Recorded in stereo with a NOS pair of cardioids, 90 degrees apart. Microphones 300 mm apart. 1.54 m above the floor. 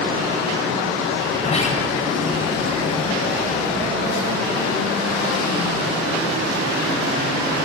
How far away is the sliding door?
About 5 m.